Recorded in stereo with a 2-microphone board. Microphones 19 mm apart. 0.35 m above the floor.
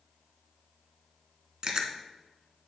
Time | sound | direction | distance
1.6 | chewing | 45° right (ahead or behind) | 0.8 m